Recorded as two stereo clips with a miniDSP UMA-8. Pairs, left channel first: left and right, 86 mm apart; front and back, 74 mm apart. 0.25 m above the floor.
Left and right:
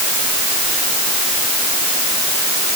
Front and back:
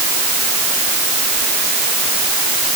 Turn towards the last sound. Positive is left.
No sound to turn to.